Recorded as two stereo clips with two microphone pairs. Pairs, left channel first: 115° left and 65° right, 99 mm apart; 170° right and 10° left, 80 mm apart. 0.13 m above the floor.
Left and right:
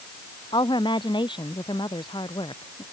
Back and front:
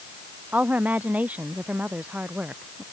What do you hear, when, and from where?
0.5 s a woman speaking: 80° left